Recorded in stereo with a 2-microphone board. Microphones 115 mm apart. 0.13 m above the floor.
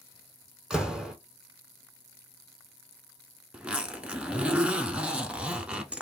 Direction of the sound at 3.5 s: 10° right (ahead or behind).